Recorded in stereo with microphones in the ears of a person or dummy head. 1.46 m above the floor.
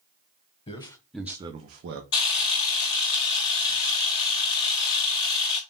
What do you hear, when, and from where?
0.7 s a man speaking: 25° left (ahead or behind), 0.9 m; by 2.0 s 65° right (ahead or behind), 0.8 m
2.1 s a camera shutter: 25° left (ahead or behind), 1.1 m